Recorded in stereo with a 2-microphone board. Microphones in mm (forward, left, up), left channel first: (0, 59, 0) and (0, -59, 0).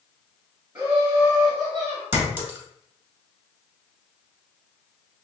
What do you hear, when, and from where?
0.8 s laughter: 15° right (ahead or behind), 1.4 m; by 2.0 s 5° left (ahead or behind), 2.5 m
2.1 s a clink: 20° right (ahead or behind), 1.4 m